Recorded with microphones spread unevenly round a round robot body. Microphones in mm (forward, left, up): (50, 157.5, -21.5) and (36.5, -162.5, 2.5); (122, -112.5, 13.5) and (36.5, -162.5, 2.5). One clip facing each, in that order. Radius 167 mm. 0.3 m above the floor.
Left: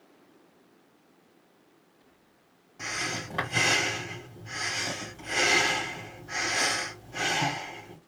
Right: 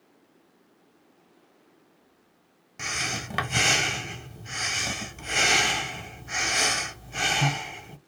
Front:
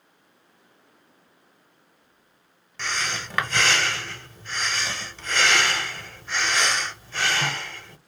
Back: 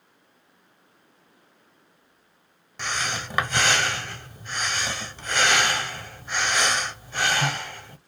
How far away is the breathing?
About 1.1 m.